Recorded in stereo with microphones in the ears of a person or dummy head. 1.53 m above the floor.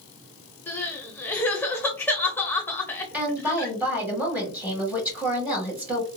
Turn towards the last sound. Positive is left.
turn(degrees=-10)  # may be behind; listen again after turning